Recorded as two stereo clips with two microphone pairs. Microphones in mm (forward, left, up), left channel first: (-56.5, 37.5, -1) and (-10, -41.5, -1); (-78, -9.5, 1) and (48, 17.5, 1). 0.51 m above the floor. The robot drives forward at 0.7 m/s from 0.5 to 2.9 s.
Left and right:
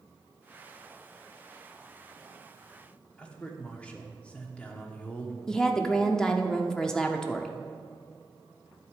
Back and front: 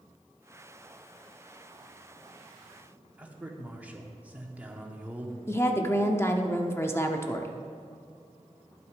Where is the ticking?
No ticking in this recording.